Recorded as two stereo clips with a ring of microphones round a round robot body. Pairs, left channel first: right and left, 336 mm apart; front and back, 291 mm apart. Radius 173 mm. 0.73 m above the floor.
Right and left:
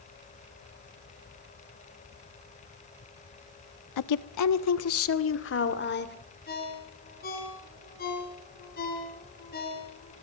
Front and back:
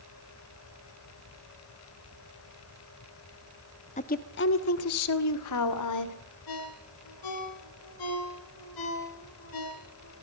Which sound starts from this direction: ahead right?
A ringtone, at 6.5 s.